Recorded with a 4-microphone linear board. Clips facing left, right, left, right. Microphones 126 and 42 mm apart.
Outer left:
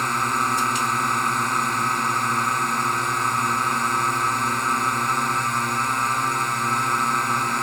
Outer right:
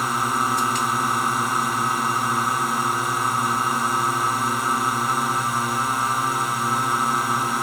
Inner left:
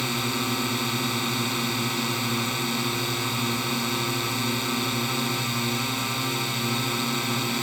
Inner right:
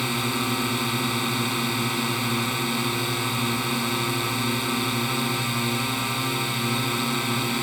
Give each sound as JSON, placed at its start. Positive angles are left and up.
{"t": 0.0, "sound": "a drone", "side_deg": -5}